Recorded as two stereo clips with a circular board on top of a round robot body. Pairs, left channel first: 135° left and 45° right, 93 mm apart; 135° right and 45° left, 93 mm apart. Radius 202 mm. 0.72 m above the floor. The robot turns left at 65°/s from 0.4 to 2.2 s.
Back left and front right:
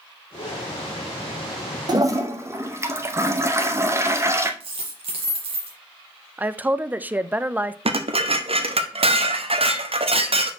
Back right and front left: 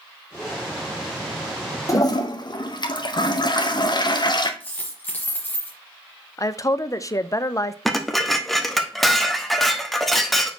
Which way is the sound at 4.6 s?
65° right.